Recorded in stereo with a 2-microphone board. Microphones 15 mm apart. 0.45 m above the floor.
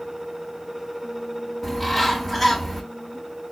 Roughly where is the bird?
Left.